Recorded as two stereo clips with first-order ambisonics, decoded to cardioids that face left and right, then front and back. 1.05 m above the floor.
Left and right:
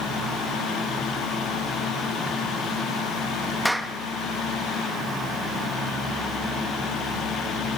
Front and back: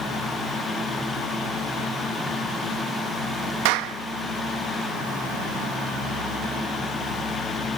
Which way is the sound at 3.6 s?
Straight behind.